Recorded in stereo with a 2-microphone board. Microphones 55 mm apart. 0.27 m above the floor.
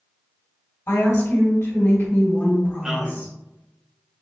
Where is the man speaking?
15° right (ahead or behind), 1.3 m.